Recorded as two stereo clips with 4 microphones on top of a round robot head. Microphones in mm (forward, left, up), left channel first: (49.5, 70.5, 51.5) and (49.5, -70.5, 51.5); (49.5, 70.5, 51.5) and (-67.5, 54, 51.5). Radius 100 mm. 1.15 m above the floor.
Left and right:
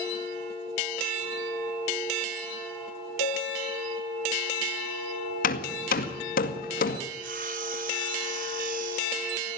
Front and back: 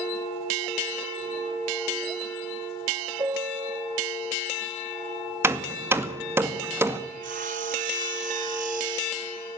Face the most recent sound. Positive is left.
turn(degrees=-135)